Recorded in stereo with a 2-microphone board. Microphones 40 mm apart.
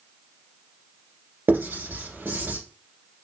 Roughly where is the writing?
Right.